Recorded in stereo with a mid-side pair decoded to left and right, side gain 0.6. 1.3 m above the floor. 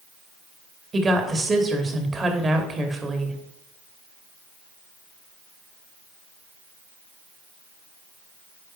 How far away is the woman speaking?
About 2.5 m.